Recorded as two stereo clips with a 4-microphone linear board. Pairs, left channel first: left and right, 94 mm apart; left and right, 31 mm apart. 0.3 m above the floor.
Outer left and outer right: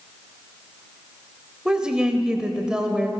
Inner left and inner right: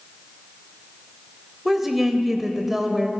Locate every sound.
1.6 s a woman speaking: 10° right (ahead or behind), 0.9 m